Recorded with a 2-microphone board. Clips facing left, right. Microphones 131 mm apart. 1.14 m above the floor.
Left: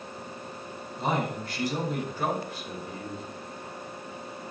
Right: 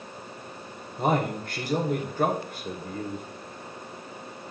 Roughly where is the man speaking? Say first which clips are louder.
Right 4 dB; right.